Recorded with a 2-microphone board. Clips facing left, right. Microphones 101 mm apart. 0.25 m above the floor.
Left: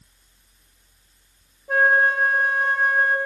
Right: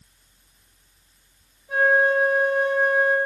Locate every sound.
1.7 s a flute: 65° left (ahead or behind), 1.2 m